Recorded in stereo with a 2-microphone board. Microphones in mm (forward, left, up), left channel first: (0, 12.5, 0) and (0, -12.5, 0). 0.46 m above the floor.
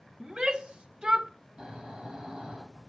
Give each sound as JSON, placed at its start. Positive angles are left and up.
{"t": 0.2, "sound": "a shout", "side_deg": -30, "distance_m": 0.9}
{"t": 1.6, "sound": "snoring", "side_deg": -25, "distance_m": 9.5}